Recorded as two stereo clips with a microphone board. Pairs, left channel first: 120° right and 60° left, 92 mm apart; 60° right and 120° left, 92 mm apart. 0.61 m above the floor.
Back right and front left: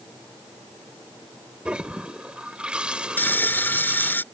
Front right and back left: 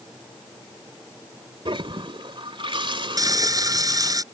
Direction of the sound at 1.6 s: 140° left.